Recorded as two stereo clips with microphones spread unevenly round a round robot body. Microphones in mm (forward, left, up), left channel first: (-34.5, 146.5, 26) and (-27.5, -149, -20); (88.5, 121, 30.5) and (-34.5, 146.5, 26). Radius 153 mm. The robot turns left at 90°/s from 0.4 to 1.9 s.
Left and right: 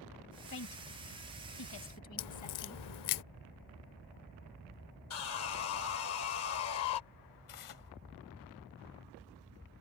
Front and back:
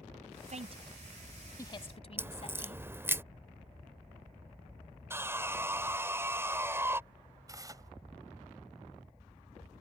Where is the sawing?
110° left.